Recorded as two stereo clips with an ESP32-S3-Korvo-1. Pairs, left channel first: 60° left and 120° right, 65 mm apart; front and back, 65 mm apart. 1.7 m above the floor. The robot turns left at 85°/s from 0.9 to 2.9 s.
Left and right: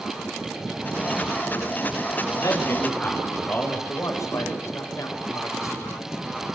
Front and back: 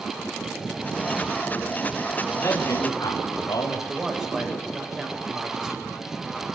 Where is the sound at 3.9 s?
100° left, 8 m.